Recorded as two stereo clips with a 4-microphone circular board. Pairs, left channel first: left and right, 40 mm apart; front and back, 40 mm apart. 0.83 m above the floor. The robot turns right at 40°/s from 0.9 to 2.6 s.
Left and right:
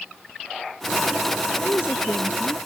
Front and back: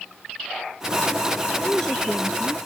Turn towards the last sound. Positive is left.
turn(degrees=105)